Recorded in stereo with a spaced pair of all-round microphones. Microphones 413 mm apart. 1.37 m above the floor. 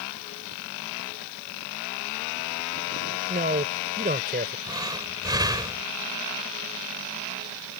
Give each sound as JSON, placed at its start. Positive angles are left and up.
{"t": 3.3, "sound": "a man speaking", "side_deg": -20}
{"t": 4.7, "sound": "breathing", "side_deg": -10}